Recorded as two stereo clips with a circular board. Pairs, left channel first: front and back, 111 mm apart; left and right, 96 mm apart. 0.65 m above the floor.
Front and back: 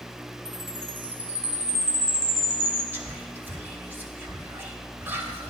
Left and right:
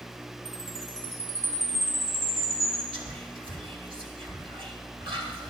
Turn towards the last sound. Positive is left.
turn(degrees=-110)